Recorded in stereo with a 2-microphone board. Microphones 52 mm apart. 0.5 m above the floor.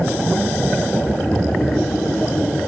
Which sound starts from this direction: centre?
Snoring, at 1.0 s.